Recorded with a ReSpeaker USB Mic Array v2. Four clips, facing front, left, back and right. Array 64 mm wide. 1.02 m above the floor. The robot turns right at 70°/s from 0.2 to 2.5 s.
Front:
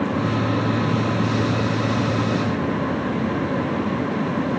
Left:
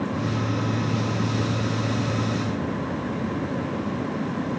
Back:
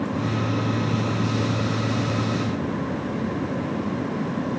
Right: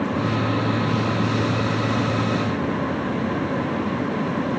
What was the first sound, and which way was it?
Only background noise.